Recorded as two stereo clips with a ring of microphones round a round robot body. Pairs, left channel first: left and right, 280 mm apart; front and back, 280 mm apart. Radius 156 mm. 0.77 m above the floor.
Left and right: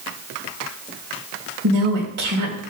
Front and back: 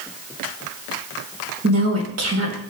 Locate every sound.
1.6 s a woman speaking: 145° right, 3.5 m